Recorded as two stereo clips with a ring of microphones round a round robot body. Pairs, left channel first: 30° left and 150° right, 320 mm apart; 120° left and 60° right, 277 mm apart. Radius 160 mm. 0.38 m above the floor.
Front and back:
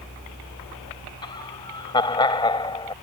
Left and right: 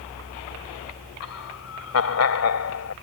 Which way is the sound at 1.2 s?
105° left.